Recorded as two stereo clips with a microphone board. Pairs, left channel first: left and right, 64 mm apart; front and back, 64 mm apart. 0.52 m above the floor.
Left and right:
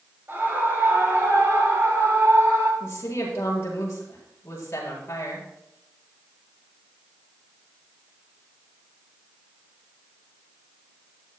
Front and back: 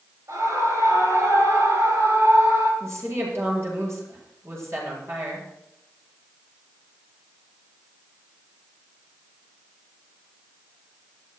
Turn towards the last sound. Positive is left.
turn(degrees=135)